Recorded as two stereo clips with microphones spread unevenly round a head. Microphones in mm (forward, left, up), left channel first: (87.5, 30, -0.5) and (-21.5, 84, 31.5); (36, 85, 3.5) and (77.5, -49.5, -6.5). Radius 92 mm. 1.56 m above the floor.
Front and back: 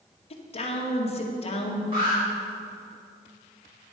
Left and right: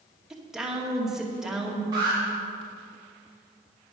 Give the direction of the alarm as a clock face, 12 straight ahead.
5 o'clock.